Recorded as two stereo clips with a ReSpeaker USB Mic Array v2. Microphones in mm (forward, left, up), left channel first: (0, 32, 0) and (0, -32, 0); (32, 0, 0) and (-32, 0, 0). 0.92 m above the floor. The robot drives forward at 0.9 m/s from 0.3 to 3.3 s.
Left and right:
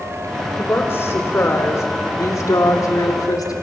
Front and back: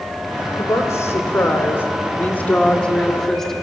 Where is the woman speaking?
40° left, 3.5 m; by 3.5 s 85° left, 2.5 m.